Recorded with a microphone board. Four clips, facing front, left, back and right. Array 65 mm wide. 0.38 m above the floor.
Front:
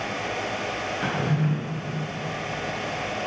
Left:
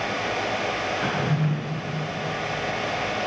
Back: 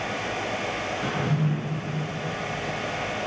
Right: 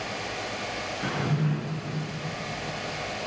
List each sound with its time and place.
1.0 s a drawer: 50° left, 1.5 m